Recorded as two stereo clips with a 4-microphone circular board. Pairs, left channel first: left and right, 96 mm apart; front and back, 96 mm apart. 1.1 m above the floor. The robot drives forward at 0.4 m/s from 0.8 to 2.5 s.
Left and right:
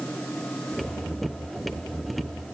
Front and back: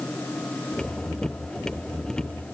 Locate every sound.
Only background noise.